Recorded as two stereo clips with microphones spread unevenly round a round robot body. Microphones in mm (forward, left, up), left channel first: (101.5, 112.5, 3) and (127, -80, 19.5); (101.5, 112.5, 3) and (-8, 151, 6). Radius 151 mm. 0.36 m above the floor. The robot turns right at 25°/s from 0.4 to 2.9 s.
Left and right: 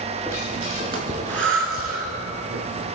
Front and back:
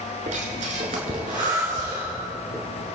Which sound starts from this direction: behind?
Breathing, at 0.3 s.